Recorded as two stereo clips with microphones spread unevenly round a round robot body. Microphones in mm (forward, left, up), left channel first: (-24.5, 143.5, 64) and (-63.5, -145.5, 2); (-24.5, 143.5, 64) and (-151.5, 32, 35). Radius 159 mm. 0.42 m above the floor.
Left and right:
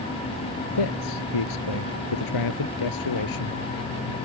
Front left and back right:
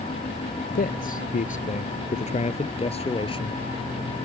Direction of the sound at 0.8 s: 75° left.